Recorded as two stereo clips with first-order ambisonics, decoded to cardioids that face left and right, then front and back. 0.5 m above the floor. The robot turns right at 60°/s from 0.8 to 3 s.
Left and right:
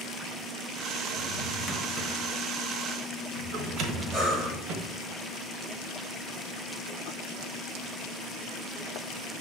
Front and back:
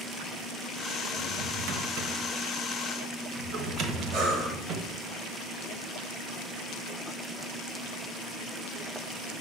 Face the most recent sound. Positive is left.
turn(degrees=-160)